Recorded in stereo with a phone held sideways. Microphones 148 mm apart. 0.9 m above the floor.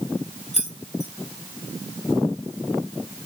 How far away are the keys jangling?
About 1.7 m.